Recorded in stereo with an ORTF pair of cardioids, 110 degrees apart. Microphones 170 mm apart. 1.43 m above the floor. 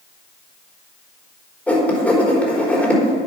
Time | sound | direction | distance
1.7 | writing | 10° left | 4 m